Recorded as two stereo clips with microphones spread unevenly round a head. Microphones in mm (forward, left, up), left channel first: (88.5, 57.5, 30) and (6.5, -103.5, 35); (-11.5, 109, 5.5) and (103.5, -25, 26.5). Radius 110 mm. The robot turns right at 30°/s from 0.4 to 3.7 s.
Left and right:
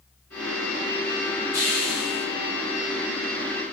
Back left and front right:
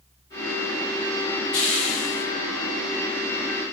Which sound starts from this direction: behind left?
A hiss, at 1.5 s.